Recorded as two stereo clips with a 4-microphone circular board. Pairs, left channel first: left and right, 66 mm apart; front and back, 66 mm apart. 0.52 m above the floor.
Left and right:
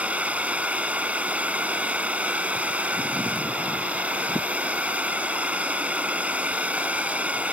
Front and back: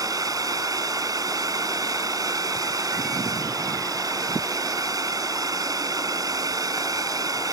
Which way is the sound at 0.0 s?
160° right.